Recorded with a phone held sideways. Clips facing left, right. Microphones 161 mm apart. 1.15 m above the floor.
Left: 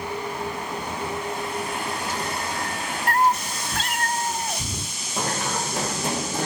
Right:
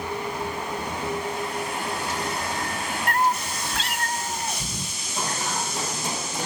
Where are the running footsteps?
55° left (ahead or behind), 4.5 m; by 6.5 s 60° left (ahead or behind), 5 m.